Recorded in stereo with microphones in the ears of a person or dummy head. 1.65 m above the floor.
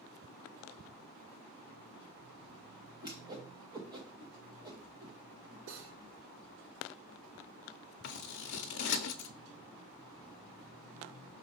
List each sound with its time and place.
3.0 s a whoosh: 15° right (ahead or behind), 0.9 m
5.7 s cutlery clinking: 70° right (ahead or behind), 2 m
8.0 s scissors: 60° left (ahead or behind), 0.7 m